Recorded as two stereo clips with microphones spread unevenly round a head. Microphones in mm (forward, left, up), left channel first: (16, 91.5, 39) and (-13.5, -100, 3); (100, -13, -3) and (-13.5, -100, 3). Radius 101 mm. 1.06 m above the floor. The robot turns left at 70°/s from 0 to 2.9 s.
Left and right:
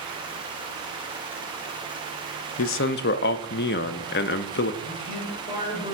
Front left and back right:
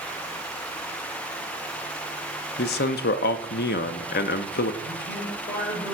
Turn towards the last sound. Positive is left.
turn(degrees=40)